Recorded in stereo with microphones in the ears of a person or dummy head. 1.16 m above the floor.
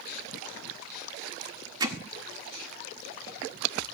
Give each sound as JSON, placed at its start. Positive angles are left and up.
{"t": 1.8, "sound": "hammering", "side_deg": -20, "distance_m": 1.4}